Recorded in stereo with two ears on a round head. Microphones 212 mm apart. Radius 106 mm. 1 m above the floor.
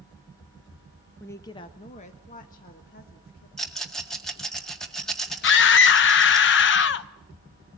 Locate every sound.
1.2 s a woman speaking: 5° left (ahead or behind), 0.8 m; by 3.5 s 40° left (ahead or behind), 2.5 m
3.6 s a rattle: centre (ahead or behind), 1.8 m
5.4 s a scream: 50° left (ahead or behind), 0.8 m